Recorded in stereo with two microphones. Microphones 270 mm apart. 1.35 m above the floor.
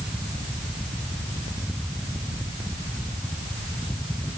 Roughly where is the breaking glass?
No breaking glass in this recording.